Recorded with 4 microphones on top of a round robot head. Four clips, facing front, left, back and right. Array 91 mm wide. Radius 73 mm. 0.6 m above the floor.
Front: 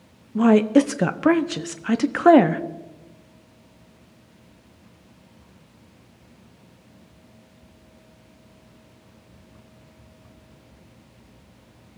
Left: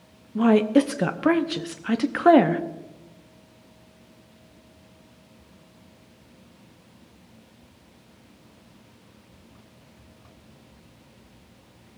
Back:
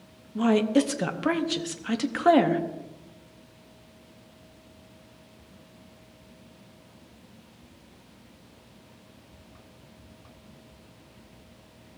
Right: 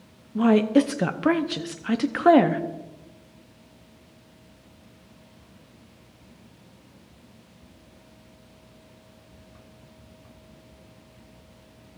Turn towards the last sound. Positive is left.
turn(degrees=10)